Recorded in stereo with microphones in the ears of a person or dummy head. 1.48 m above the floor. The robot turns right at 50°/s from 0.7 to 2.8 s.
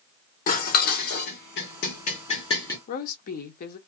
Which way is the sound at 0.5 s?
50° left (ahead or behind).